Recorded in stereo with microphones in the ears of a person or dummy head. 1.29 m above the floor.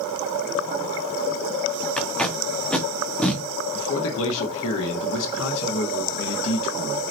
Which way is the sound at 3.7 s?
70° left (ahead or behind).